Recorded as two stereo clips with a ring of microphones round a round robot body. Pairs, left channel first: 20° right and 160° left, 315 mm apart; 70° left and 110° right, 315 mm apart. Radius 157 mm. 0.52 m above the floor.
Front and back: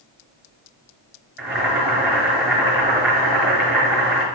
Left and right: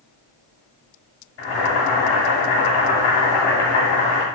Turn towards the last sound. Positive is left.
turn(degrees=75)